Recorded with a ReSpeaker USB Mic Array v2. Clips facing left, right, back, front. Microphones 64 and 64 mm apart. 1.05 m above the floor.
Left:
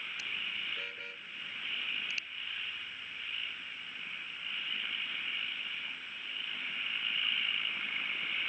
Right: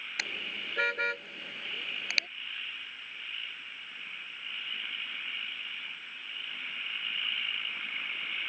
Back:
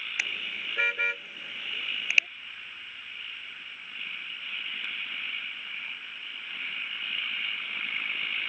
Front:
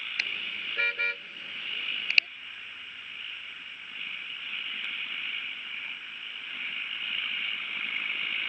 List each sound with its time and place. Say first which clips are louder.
0.2 s a car horn: right 4 dB, back 1 dB; 100° right